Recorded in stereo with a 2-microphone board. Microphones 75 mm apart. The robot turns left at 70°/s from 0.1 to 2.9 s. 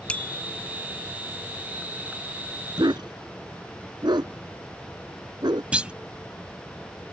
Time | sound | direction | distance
0.1 | a bicycle bell | 15° left (ahead or behind) | ?
2.8 | a dog barking | 80° right | ?
5.7 | a clunk | 15° right (ahead or behind) | ?